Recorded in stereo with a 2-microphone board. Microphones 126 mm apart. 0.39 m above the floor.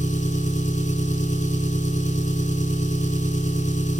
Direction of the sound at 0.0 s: 75° left (ahead or behind).